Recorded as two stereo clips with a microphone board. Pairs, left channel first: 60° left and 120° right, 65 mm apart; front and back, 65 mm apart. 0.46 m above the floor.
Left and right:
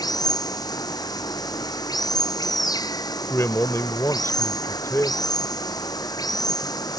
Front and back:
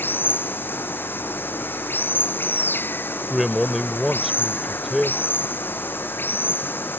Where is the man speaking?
95° left.